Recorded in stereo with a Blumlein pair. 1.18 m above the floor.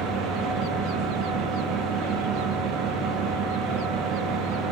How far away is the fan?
About 1.0 m.